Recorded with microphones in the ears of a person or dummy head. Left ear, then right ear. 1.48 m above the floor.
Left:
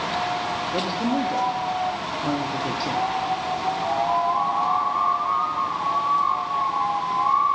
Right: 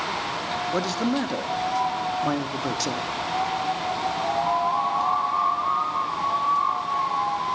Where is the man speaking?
55° right (ahead or behind), 1.0 m.